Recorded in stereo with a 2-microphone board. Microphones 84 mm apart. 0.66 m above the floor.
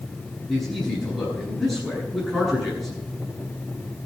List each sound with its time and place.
0.5 s a man speaking: centre (ahead or behind), 9 m